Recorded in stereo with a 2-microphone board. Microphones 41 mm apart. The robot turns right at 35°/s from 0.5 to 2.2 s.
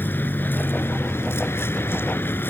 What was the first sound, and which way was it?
A vehicle, 60° left.